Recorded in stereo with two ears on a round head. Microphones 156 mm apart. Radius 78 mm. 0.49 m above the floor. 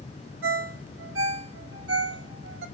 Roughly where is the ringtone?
Right.